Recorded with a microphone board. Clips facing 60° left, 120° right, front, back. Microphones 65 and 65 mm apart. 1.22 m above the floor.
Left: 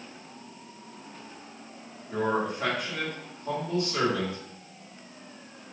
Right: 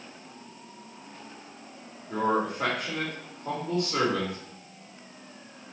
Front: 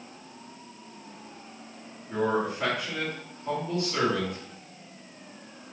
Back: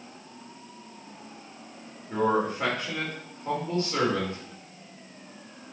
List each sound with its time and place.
2.1 s a man speaking: 125° right, 4 m